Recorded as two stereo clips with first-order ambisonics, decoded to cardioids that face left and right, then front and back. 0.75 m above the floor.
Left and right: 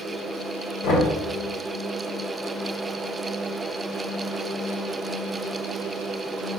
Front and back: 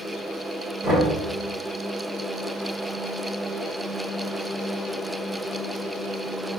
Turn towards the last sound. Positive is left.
turn(degrees=115)